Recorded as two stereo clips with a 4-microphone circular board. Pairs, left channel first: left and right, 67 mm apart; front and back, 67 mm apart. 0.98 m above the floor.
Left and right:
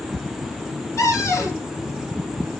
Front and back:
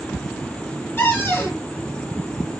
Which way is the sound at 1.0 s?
55° left.